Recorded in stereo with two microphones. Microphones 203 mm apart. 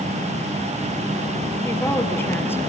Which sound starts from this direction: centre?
A woman speaking, at 1.6 s.